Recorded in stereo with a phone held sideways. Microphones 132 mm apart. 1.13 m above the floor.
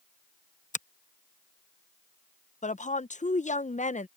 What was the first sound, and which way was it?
A finger snap, 70° left (ahead or behind).